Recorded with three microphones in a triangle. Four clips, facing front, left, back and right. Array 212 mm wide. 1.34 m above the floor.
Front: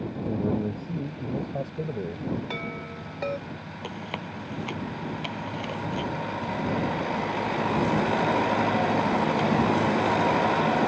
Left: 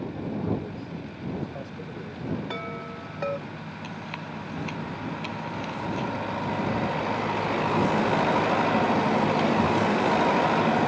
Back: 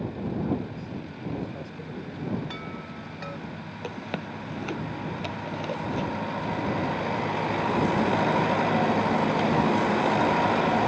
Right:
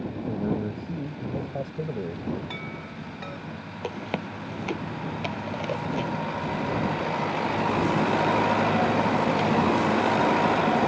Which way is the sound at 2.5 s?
50° left.